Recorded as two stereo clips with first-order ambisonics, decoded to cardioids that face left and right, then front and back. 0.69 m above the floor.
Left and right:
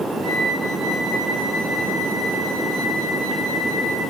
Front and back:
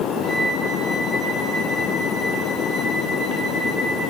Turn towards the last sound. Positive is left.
turn(degrees=-110)